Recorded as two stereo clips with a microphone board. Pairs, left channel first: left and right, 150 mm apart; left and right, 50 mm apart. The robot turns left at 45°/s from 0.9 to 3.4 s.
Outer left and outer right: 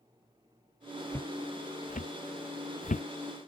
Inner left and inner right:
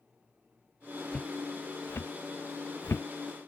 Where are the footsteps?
15° left (ahead or behind); by 3.1 s 50° left (ahead or behind).